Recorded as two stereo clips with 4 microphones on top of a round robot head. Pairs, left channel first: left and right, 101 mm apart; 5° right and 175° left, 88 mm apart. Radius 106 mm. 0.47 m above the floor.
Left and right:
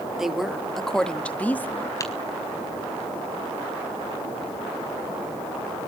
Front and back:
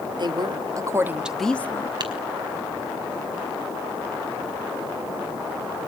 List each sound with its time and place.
0.2 s a woman speaking: 175° right, 2.0 m; by 1.9 s 25° left, 1.4 m
2.0 s tapping: 145° left, 4.5 m